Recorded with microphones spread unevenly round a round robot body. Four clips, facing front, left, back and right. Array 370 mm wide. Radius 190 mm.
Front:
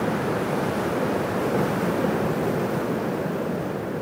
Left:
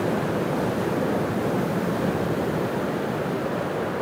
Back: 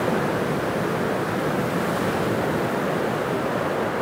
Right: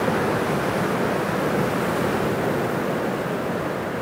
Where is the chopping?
No chopping in this recording.